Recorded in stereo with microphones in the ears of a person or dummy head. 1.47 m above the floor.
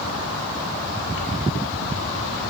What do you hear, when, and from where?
Only background noise.